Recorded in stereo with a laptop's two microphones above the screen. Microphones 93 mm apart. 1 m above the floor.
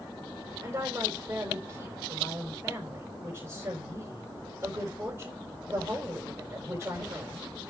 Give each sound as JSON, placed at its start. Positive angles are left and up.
{"t": 0.6, "sound": "a woman speaking", "side_deg": -30, "distance_m": 4.5}